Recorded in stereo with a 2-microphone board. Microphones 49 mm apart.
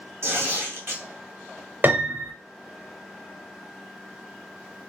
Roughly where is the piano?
Right.